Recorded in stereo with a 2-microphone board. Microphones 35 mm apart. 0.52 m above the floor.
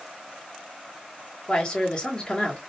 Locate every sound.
1.5 s a man speaking: 25° left (ahead or behind), 0.9 m